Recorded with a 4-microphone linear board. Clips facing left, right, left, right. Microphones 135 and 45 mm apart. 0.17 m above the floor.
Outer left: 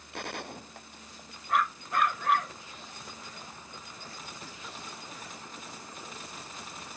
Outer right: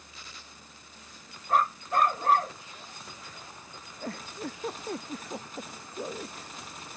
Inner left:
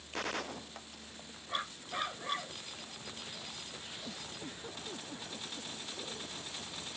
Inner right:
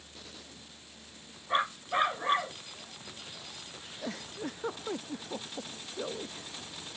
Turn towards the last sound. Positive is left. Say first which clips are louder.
# outer right 13 dB, inner right 11 dB
turn(degrees=-60)  # may be behind; listen again after turning